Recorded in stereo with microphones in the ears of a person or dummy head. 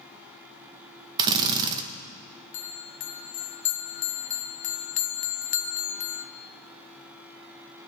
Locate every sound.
1.2 s a drill: 25° right (ahead or behind), 1.0 m
2.5 s a bell: 45° left (ahead or behind), 0.5 m